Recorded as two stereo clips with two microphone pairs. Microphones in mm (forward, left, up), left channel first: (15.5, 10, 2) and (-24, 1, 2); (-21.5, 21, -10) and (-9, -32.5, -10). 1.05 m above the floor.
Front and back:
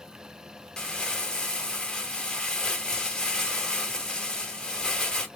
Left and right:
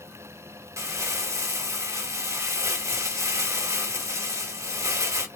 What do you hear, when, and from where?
0.8 s crumpling: 60° right, 1.9 m